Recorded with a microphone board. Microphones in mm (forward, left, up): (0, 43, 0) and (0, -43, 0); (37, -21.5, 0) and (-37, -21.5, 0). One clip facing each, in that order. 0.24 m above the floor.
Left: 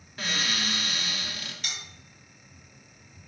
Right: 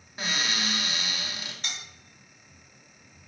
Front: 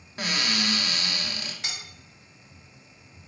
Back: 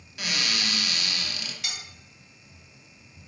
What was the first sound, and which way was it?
A cupboard door, 25° right.